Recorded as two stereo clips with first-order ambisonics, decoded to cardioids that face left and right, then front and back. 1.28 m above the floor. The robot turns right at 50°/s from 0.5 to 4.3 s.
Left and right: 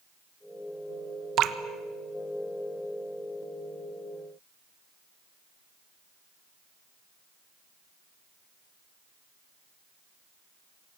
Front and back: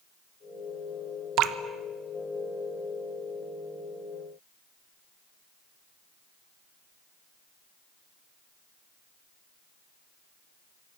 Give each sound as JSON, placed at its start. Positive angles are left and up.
{"t": 1.4, "sound": "dripping", "azimuth_deg": -140, "distance_m": 1.2}